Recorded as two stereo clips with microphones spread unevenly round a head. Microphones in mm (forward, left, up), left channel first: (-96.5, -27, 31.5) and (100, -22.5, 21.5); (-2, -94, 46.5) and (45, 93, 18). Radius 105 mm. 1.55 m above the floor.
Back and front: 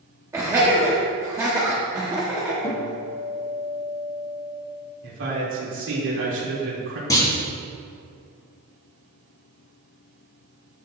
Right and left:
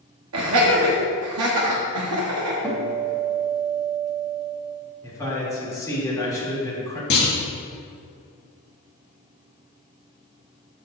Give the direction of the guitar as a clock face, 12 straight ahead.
7 o'clock.